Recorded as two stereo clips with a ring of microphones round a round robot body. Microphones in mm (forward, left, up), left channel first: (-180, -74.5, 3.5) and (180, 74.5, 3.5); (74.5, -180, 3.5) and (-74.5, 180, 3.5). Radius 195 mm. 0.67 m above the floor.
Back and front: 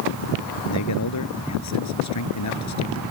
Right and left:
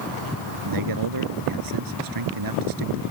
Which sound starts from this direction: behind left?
A man speaking, at 0.7 s.